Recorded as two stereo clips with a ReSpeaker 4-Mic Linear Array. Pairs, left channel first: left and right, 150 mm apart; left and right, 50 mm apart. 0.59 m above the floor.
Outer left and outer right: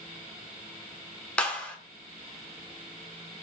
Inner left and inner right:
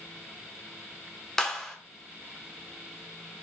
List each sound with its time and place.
1.4 s a clap: 10° left (ahead or behind), 1.2 m